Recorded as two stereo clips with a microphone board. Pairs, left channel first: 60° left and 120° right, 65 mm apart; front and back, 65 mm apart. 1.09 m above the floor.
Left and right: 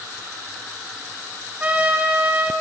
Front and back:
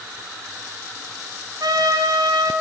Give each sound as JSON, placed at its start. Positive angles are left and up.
{"t": 1.6, "sound": "a trumpet", "azimuth_deg": 170, "distance_m": 8.5}